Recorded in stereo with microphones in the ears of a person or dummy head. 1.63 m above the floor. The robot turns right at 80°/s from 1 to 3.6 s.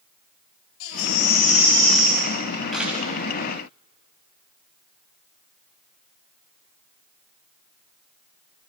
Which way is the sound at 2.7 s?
Centre (ahead or behind).